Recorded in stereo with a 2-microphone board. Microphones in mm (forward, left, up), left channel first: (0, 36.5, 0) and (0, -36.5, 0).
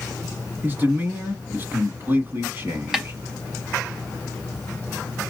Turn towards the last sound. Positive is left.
turn(degrees=-10)  # may be behind; listen again after turning